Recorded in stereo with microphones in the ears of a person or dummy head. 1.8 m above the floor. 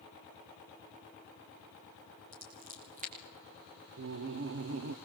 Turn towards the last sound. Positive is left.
turn(degrees=-55)  # may be behind; listen again after turning